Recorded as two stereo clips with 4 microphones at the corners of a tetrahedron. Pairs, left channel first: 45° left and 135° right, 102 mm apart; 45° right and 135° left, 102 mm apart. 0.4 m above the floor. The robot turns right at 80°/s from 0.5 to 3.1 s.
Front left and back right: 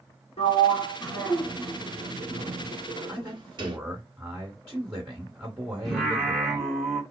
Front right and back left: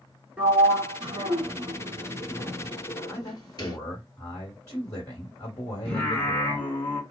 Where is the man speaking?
80° right, 1.7 m.